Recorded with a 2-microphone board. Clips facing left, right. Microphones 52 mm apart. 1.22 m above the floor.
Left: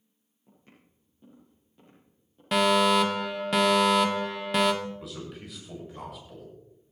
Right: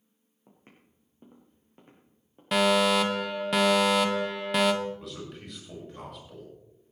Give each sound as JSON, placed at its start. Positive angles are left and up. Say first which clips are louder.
{"t": 0.5, "sound": "footsteps", "louder": "right 1 dB", "side_deg": -40, "distance_m": 4.0}
{"t": 2.5, "sound": "a fire alarm", "louder": "left 1 dB", "side_deg": 0, "distance_m": 1.2}
{"t": 4.8, "sound": "a man speaking", "louder": "right 1 dB", "side_deg": 0, "distance_m": 6.5}